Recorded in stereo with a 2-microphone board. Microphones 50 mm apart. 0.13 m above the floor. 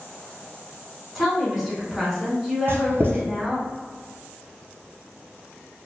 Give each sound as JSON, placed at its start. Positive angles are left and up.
{"t": 1.1, "sound": "a woman speaking", "side_deg": -5, "distance_m": 1.0}
{"t": 2.7, "sound": "writing", "side_deg": -55, "distance_m": 0.7}